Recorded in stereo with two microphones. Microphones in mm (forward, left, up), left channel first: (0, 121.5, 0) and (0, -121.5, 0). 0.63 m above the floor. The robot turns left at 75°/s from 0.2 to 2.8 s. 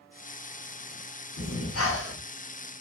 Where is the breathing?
100° left, 0.8 m; by 2.2 s 35° left, 0.8 m.